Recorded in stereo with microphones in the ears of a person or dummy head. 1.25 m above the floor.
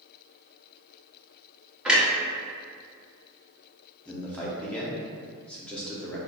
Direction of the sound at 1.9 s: Centre (ahead or behind).